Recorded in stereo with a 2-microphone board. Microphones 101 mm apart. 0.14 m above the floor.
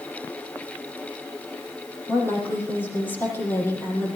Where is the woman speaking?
20° left (ahead or behind), 5.5 m.